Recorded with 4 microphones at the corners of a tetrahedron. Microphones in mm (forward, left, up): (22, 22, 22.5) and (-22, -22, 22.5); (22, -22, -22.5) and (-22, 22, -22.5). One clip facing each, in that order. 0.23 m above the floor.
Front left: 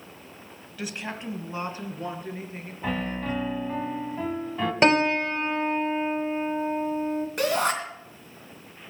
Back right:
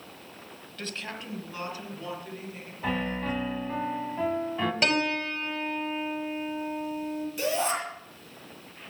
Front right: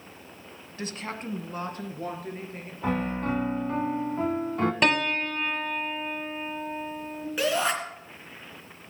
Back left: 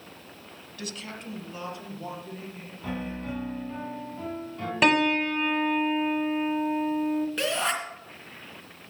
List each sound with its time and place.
0.8 s a woman speaking: 30° right, 1.1 m; by 3.3 s 10° right, 4.5 m
2.8 s a piano: 45° right, 0.9 m
4.8 s a piano: 50° left, 0.8 m
7.4 s a shout: 35° left, 3 m